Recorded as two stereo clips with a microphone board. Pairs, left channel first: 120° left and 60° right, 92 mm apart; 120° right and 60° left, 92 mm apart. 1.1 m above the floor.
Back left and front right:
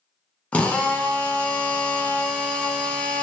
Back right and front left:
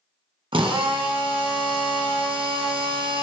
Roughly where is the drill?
Ahead left.